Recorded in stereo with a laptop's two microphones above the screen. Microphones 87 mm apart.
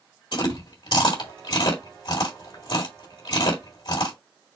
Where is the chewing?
70° left (ahead or behind), 2 m.